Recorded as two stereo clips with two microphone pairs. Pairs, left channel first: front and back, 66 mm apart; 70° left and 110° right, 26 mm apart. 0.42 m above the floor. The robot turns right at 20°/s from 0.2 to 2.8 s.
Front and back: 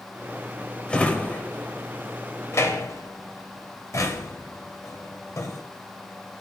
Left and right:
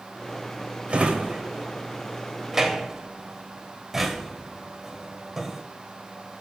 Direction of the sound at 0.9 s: 75° right.